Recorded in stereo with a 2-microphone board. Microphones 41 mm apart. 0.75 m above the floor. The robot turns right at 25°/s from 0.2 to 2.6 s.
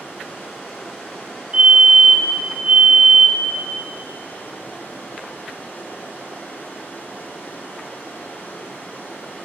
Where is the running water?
60° left, 1.6 m; by 9.5 s 120° left, 1.6 m.